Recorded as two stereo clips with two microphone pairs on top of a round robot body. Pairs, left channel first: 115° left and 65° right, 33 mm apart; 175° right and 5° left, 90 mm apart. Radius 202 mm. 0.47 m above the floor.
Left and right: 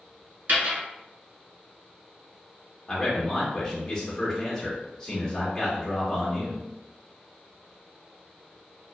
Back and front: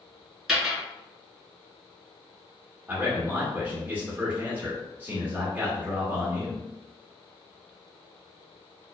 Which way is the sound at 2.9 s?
60° left.